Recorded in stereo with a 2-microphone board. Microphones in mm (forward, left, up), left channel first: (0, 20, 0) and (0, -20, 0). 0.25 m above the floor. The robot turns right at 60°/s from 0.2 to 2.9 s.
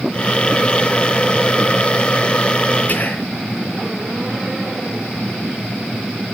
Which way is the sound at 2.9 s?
40° left (ahead or behind).